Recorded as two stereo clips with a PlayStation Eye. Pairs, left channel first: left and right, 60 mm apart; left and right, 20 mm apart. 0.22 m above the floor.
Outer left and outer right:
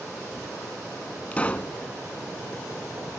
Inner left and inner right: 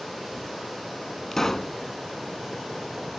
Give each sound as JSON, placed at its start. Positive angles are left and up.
{"t": 1.3, "sound": "a pop", "side_deg": 20, "distance_m": 0.7}